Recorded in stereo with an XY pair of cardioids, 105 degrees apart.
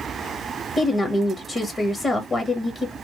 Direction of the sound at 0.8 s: 30° left.